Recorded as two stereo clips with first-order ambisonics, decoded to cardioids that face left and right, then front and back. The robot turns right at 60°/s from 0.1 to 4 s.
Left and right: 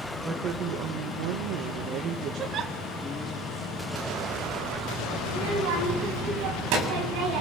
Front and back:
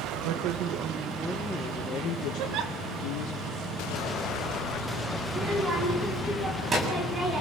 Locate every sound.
0.2 s a woman speaking: 160° right, 1.7 m; by 3.4 s 30° left, 1.7 m
2.4 s a giggle: 155° right, 1.7 m; by 2.7 s 130° right, 1.7 m
5.3 s a child speaking: 110° right, 8 m